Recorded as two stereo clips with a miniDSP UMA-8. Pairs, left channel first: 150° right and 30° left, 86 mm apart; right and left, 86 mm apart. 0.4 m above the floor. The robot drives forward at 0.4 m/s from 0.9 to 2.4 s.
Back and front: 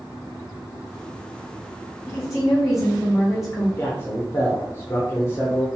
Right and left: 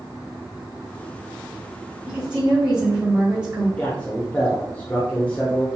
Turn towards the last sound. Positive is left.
turn(degrees=-145)